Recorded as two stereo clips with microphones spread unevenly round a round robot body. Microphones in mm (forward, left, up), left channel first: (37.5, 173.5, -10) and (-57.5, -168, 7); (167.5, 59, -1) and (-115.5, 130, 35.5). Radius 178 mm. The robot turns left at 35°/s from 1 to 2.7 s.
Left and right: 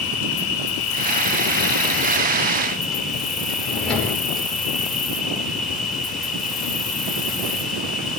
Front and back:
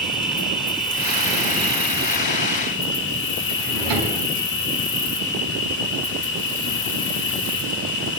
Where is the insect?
50° left, 2 m; by 8.2 s 10° right, 2 m.